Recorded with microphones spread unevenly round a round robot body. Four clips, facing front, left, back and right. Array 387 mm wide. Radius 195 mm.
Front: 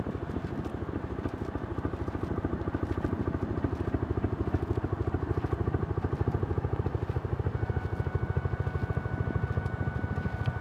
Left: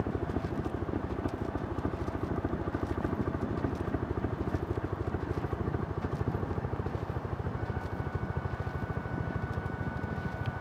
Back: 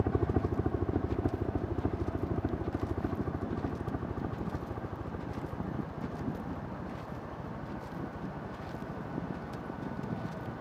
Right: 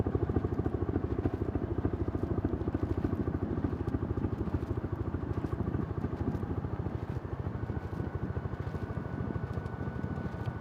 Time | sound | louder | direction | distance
0.0 | a helicopter | right 1 dB, back 4 dB | 150° right | ?